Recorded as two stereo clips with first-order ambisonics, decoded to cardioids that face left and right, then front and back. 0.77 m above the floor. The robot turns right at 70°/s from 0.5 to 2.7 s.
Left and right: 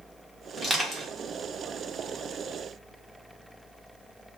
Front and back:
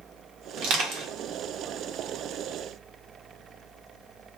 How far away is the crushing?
About 1.1 m.